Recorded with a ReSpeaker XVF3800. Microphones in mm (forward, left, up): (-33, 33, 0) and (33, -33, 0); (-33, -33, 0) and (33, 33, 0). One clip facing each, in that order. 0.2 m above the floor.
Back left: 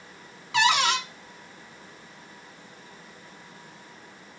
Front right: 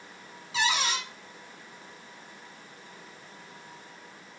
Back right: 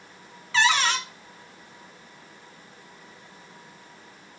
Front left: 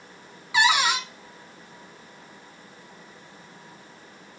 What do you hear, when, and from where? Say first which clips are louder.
0.5 s a cupboard door: back left 6 dB, front left 1 dB; 120° left, 0.8 m